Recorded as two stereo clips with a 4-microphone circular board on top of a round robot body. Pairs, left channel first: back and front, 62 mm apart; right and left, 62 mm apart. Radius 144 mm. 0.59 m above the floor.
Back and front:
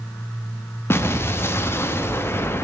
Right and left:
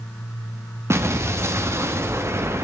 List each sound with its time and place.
0.9 s an explosion: 130° left, 0.8 m